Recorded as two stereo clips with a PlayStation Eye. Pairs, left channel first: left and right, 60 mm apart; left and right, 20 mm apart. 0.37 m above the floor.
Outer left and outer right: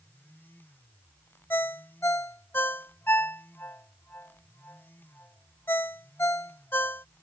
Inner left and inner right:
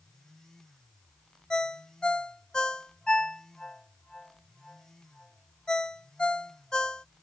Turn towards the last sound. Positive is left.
turn(degrees=35)  # may be behind; listen again after turning